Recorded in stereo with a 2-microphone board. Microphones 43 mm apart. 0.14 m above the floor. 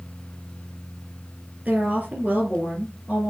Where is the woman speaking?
30° right (ahead or behind), 4 m.